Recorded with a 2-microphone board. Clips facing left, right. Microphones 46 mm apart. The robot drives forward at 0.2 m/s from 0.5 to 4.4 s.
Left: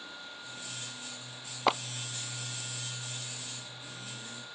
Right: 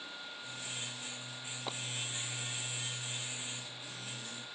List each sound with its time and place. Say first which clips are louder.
1.7 s a clap: left 16 dB; 80° left